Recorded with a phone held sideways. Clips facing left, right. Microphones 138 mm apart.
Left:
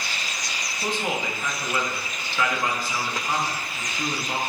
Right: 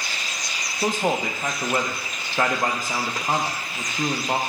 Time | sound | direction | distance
0.8 | a man speaking | 45° right (ahead or behind) | 0.6 m